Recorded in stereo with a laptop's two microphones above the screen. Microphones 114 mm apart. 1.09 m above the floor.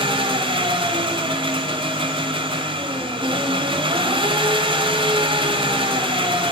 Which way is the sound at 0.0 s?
45° right (ahead or behind).